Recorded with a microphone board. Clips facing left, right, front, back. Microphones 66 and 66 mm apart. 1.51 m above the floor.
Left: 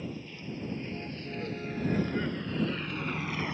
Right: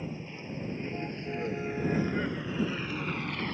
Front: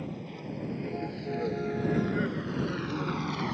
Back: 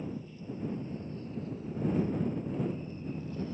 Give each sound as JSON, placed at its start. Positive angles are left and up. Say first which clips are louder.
{"t": 0.0, "sound": "a vehicle", "louder": "even, front 2 dB", "azimuth_deg": -25}